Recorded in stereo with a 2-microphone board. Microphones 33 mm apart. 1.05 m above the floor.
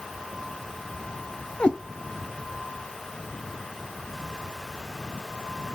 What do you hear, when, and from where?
1.6 s a cat meowing: 30° left (ahead or behind), 0.9 m